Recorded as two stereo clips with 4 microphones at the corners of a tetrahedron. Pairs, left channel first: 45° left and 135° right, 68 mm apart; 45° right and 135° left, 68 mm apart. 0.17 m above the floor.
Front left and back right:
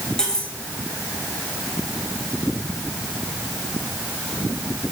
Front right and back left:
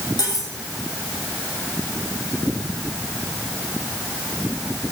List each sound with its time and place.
0.2 s cutlery clinking: 35° right, 4 m